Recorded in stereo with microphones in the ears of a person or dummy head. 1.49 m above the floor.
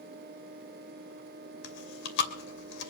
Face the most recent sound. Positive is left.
turn(degrees=65)  # may be behind; listen again after turning